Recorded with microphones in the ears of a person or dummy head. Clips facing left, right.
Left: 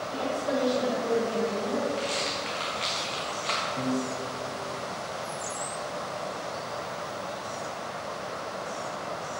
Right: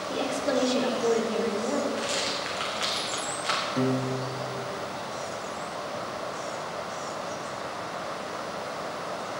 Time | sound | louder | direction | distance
0.1 | a woman speaking | right 2 dB | 75° right (ahead or behind) | 1.1 m
2.0 | a rattle | even | 10° right (ahead or behind) | 1.1 m
3.8 | a piano | right 4 dB | 55° right (ahead or behind) | 0.6 m